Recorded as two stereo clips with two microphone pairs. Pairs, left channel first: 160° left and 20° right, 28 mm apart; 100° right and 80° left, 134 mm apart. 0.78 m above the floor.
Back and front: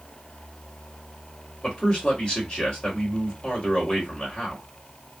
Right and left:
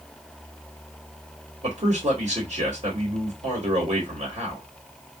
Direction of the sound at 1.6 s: 100° left.